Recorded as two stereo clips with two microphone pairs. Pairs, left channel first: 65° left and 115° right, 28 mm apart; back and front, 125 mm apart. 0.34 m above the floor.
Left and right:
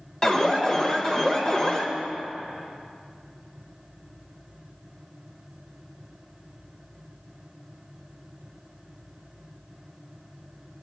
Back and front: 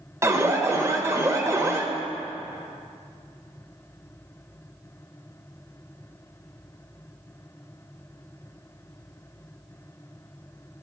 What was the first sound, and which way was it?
An alarm, 40° left.